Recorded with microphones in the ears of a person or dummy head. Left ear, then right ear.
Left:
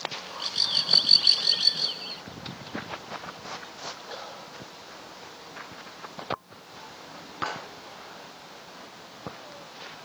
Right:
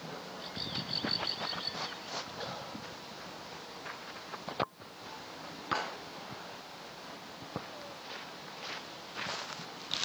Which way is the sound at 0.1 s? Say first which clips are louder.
Left 13 dB; 50° left (ahead or behind).